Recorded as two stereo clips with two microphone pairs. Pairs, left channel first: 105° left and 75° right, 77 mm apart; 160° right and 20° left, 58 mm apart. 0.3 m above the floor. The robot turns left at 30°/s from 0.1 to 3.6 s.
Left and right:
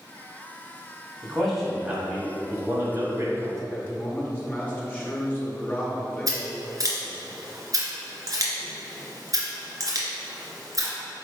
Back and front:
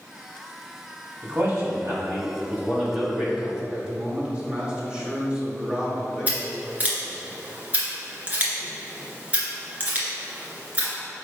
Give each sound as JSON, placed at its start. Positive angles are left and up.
{"t": 1.2, "sound": "a man speaking", "azimuth_deg": 20, "distance_m": 1.8}
{"t": 3.7, "sound": "a man speaking", "azimuth_deg": 65, "distance_m": 1.6}
{"t": 6.3, "sound": "scissors", "azimuth_deg": -40, "distance_m": 1.8}